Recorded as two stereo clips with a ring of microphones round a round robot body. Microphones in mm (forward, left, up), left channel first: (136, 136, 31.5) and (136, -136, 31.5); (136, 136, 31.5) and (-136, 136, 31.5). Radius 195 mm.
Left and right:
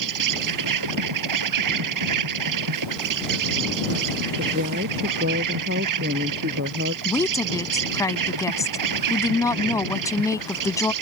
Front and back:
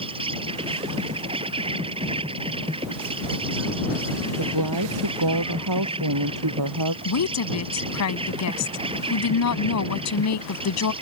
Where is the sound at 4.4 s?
155° right.